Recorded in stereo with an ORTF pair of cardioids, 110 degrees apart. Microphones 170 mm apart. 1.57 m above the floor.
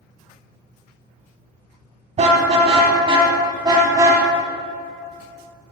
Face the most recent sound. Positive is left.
turn(degrees=-20)